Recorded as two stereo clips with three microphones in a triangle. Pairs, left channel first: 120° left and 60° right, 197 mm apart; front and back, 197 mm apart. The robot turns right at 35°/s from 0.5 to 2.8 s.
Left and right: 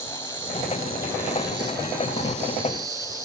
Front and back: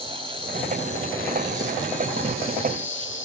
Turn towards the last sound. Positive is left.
turn(degrees=15)